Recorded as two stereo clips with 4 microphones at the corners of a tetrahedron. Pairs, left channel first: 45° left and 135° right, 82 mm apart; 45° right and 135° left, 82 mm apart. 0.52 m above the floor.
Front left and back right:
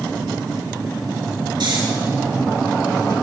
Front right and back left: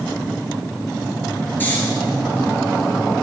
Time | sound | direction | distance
1.6 | snoring | 115° right | 3.5 m